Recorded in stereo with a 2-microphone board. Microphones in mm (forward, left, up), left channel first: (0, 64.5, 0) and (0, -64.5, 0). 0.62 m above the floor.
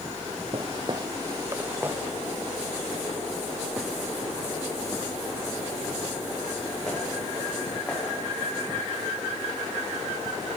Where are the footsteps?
45° right (ahead or behind), 0.8 m; by 8.1 s 5° left (ahead or behind), 6 m.